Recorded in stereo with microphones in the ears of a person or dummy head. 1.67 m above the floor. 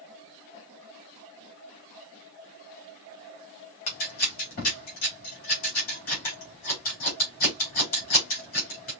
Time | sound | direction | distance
3.9 | scissors | 45° left (ahead or behind) | 4 m